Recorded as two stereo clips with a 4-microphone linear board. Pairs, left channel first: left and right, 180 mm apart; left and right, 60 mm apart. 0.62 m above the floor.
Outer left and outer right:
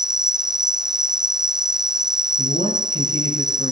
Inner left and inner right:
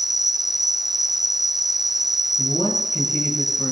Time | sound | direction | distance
0.0 | an insect | 5° right (ahead or behind) | 0.8 m
2.4 | a man speaking | 60° left (ahead or behind) | 8 m